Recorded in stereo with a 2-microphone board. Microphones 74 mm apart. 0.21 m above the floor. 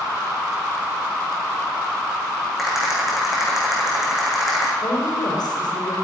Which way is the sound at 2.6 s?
Centre (ahead or behind).